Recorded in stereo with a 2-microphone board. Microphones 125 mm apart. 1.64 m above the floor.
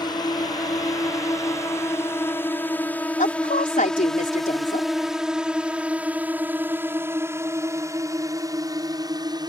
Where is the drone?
30° left (ahead or behind); by 9.5 s 30° right (ahead or behind).